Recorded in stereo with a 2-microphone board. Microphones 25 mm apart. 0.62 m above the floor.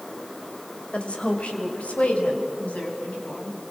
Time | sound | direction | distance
0.9 | a woman speaking | 55° left (ahead or behind) | 3 m